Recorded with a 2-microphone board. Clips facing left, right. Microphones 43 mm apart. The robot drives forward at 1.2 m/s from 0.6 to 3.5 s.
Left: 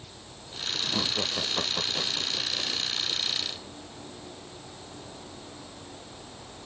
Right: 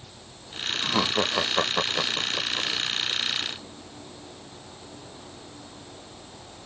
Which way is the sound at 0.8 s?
55° right (ahead or behind).